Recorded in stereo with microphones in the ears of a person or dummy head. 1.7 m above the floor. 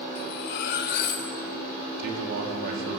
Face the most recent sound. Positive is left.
turn(degrees=-60)  # may be behind; listen again after turning